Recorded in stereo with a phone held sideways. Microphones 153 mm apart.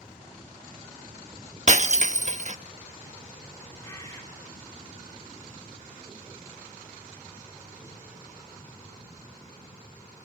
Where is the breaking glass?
50° right (ahead or behind), 0.9 m.